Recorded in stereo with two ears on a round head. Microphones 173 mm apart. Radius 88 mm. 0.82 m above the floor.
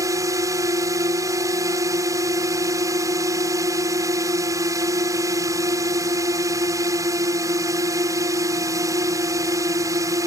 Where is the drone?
20° right (ahead or behind).